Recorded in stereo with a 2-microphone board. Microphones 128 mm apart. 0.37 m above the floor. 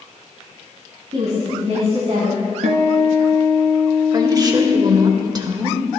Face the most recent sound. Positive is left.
turn(degrees=-30)  # may be behind; listen again after turning